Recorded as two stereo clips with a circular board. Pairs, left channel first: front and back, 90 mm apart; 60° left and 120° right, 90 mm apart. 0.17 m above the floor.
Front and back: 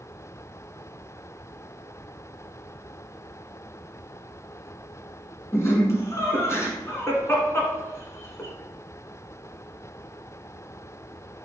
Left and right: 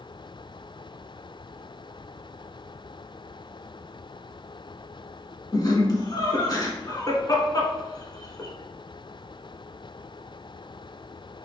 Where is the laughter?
45° left, 1.4 m.